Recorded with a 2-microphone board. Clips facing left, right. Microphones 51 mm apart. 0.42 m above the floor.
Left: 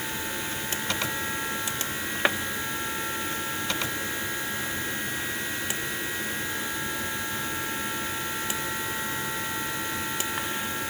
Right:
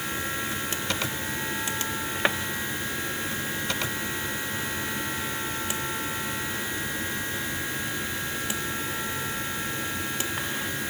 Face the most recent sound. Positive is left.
No sound to turn to.